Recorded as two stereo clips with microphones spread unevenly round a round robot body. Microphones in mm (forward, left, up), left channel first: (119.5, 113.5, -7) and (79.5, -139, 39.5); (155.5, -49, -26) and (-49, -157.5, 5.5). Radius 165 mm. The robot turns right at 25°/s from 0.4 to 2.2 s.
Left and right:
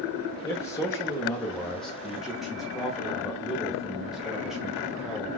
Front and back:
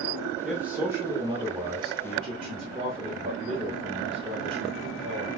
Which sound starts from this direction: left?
A man speaking, at 0.4 s.